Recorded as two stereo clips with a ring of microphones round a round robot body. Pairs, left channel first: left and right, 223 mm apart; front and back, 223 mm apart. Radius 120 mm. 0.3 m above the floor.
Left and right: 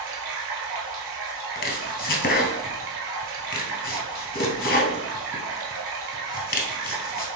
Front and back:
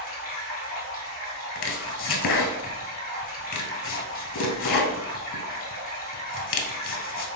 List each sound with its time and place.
0.0 s running water: 60° right, 1.3 m
1.6 s chopping: 40° left, 0.7 m